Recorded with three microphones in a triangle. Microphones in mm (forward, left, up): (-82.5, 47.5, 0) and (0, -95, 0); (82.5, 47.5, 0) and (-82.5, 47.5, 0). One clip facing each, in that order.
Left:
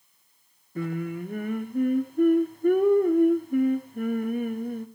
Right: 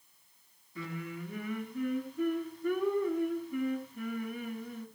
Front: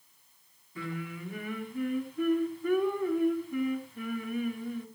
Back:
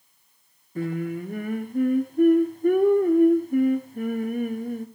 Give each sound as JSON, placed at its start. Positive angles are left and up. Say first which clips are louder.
{"t": 0.8, "sound": "singing", "louder": "left 10 dB, back 11 dB", "azimuth_deg": 145, "distance_m": 1.4}